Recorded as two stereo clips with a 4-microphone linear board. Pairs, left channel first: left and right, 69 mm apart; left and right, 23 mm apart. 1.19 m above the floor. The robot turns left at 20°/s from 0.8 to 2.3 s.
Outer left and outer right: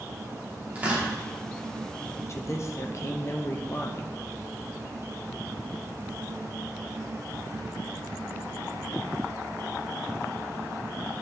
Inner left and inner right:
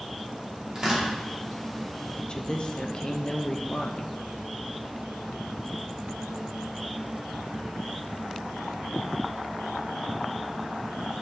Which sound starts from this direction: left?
A woman speaking, at 2.3 s.